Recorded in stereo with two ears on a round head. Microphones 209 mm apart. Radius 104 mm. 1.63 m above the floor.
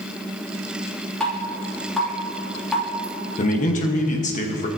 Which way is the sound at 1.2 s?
5° left (ahead or behind).